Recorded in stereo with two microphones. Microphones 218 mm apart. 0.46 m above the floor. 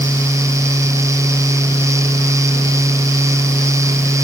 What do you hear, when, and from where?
Only background noise.